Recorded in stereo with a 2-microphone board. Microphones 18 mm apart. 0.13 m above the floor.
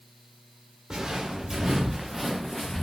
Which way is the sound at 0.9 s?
40° right (ahead or behind).